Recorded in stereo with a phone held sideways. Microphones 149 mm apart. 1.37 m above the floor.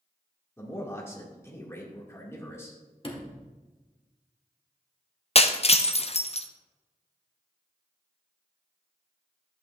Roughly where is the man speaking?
Centre.